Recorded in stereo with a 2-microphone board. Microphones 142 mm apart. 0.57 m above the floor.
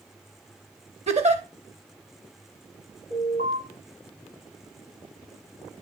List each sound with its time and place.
1.1 s a giggle: 45° right (ahead or behind), 0.8 m
3.1 s an alarm: 80° right, 3 m